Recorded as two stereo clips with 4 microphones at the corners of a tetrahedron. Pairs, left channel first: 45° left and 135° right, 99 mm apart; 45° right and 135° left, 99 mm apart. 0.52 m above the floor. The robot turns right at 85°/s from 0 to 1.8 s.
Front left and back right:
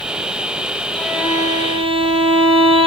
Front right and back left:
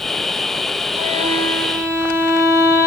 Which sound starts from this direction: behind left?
A violin, at 0.9 s.